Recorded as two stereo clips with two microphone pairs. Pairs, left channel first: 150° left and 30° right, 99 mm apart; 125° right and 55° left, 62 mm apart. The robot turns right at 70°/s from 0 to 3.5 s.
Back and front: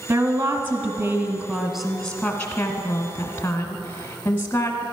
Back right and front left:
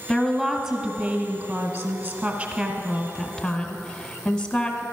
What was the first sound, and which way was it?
A woman speaking, 65° right.